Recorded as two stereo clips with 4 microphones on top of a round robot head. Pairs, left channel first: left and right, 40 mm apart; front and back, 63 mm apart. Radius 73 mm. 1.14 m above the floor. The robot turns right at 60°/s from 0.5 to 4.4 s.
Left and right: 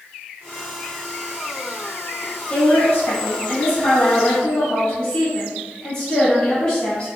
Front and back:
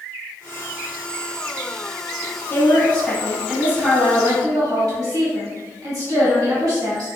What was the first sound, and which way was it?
A woman speaking, 40° left.